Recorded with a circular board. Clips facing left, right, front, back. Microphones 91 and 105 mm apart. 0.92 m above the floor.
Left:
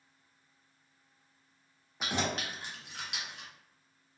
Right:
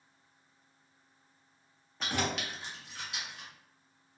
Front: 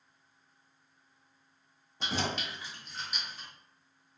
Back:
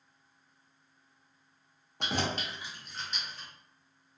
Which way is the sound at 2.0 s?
165° left.